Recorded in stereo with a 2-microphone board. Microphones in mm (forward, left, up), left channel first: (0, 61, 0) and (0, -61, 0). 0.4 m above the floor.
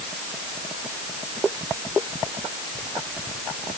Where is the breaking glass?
I don't hear breaking glass.